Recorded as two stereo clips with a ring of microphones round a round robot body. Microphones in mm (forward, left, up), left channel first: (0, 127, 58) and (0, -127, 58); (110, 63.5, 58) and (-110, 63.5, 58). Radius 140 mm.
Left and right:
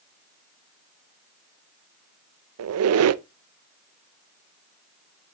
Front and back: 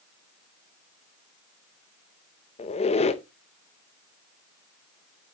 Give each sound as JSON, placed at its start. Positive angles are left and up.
{"t": 2.6, "sound": "a squeak", "azimuth_deg": -65, "distance_m": 0.6}